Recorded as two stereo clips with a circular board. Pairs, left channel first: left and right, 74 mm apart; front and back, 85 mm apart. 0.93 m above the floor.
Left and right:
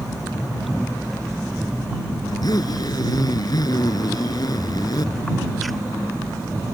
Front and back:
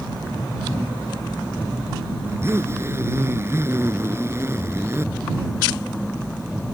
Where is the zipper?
120° left.